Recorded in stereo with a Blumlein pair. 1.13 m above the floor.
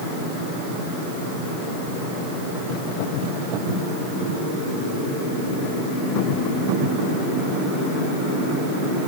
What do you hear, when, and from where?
Only background noise.